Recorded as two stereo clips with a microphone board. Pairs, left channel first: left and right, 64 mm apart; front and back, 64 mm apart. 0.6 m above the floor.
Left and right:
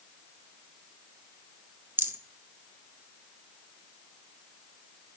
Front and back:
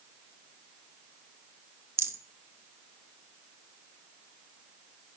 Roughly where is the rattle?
Behind right.